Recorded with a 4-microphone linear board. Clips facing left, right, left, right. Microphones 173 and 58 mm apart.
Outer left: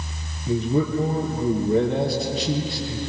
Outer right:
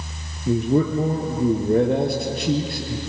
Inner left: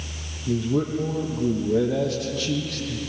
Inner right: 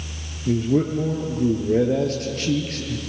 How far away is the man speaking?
About 3.5 m.